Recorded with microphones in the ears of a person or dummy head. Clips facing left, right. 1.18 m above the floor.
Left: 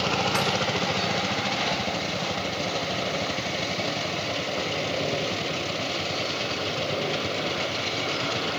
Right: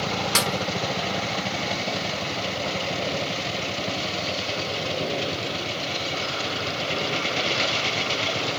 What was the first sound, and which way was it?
A snare drum, 50° right (ahead or behind).